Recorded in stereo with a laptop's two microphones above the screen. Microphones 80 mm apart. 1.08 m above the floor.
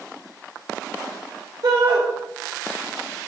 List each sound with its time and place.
1.6 s a shout: 70° right (ahead or behind), 1.3 m